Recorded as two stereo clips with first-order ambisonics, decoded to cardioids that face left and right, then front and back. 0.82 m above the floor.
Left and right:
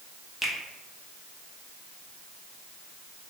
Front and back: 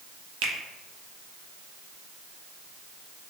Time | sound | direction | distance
0.4 | a finger snap | straight behind | 0.6 m